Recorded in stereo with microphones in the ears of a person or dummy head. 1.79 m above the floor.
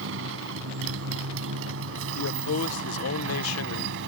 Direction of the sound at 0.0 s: 80° right.